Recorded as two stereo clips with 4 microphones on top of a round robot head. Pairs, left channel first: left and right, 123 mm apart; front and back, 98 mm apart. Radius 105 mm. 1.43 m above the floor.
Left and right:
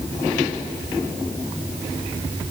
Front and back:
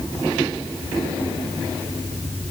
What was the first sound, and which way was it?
Only background noise.